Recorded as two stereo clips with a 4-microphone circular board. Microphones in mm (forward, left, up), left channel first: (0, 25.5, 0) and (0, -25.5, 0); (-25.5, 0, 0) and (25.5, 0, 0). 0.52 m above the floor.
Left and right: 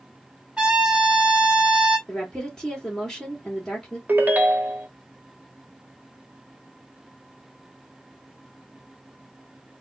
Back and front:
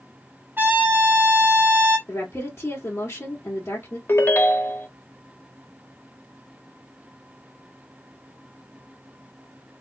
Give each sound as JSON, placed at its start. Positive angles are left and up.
{"t": 0.6, "sound": "a trumpet", "azimuth_deg": -25, "distance_m": 1.6}
{"t": 2.1, "sound": "a woman speaking", "azimuth_deg": 165, "distance_m": 1.9}
{"t": 4.1, "sound": "a ringtone", "azimuth_deg": -140, "distance_m": 0.7}